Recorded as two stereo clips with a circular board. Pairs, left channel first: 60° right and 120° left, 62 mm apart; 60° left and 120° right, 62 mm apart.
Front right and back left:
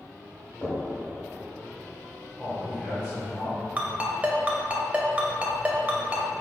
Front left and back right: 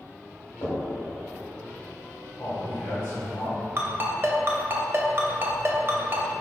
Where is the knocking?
10° left, 1.5 m.